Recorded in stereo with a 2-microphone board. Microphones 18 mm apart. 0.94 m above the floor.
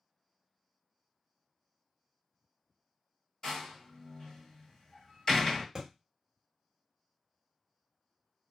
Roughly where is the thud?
Right.